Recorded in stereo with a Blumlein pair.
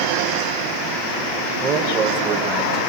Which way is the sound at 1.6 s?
25° right.